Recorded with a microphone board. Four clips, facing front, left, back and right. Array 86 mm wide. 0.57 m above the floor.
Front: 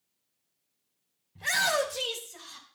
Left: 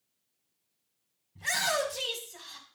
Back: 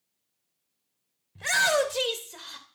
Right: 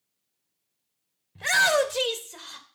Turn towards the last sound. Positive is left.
turn(degrees=-135)